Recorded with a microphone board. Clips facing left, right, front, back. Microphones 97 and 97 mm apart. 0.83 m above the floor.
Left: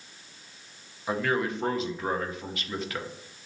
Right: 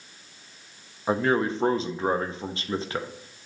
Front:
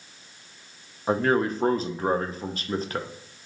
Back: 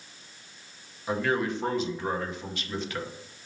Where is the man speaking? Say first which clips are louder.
Right 4 dB, front 5 dB; 35° right, 0.5 m.